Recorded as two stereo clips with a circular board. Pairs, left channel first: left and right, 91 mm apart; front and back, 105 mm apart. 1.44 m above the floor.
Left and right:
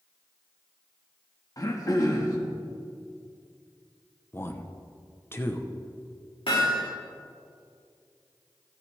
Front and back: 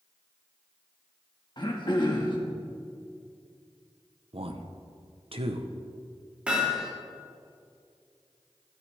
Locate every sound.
1.6 s throat clearing: 40° left, 1.7 m
4.3 s a man speaking: 155° left, 0.9 m
6.5 s hammering: 100° left, 3.5 m